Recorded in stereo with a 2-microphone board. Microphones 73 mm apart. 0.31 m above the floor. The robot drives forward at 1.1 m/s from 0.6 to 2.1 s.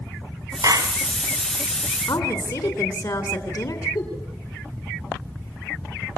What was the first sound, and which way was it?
A clap, 60° right (ahead or behind).